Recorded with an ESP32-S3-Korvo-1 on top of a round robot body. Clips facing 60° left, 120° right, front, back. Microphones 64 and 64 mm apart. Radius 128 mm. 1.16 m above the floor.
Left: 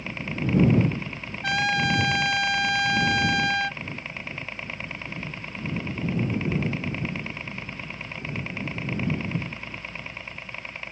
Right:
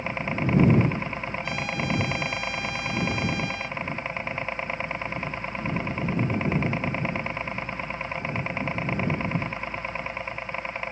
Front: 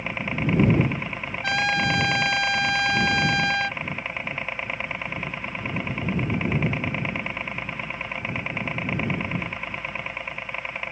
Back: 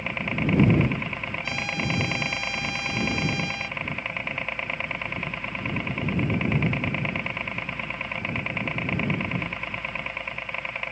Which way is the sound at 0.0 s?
85° right.